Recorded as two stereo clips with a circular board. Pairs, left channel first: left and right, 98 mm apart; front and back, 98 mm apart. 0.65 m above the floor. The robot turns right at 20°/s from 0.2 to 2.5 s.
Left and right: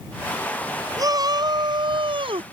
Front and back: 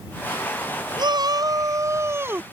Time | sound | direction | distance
1.0 | a shout | 140° right | ?